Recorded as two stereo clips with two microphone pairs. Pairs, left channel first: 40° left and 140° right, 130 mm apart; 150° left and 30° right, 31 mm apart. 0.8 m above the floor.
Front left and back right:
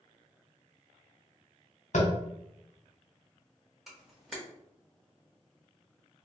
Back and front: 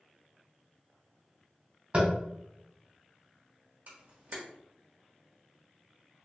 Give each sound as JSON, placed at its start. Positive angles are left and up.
{"t": 1.9, "sound": "tapping", "azimuth_deg": 20, "distance_m": 0.9}
{"t": 3.9, "sound": "a camera shutter", "azimuth_deg": -55, "distance_m": 1.0}